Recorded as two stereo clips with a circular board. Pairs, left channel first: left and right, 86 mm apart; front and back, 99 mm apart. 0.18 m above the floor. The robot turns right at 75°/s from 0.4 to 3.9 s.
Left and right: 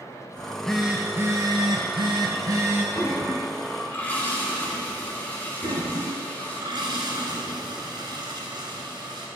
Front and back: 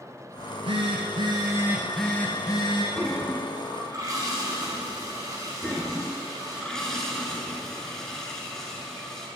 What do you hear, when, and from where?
0.4 s a phone buzzing: 150° left, 0.9 m; by 2.9 s 25° right, 0.9 m
3.0 s a toilet flushing: 75° left, 1.1 m; by 6.6 s 150° left, 1.1 m
5.6 s a toilet flushing: 85° right, 0.9 m